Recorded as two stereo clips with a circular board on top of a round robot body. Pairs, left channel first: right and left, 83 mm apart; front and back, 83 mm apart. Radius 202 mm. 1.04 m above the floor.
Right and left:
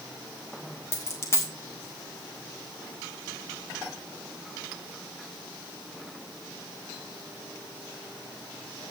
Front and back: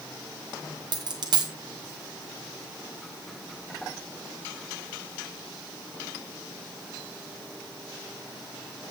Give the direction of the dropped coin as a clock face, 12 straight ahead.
5 o'clock.